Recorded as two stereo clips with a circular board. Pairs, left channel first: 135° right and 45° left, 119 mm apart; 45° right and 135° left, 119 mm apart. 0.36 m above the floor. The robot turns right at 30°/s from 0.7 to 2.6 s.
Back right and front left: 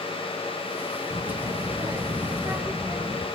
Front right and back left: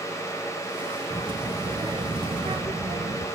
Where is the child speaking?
70° left, 1.0 m; by 3.3 s 115° left, 1.0 m.